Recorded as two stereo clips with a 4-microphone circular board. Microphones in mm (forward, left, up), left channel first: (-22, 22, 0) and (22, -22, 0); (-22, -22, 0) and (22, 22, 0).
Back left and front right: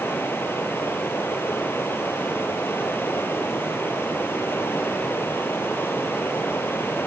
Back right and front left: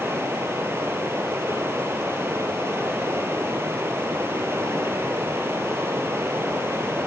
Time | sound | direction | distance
0.0 | running water | 85° left | 2.5 m